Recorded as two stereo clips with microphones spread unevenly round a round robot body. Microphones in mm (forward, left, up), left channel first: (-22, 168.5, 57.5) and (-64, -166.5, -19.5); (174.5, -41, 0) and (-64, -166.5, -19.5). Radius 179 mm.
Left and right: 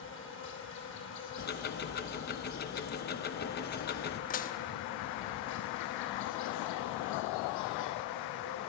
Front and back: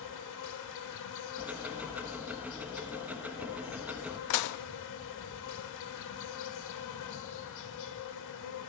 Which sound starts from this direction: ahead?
Dishes clattering, at 4.3 s.